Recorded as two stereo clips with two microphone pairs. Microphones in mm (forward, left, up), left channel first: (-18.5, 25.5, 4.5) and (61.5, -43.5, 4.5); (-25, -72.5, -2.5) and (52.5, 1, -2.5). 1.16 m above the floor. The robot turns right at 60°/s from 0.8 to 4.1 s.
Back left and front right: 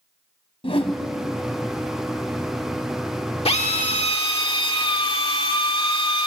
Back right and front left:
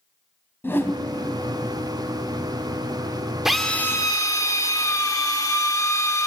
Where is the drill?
130° left, 1.4 m; by 6.3 s 170° left, 1.4 m.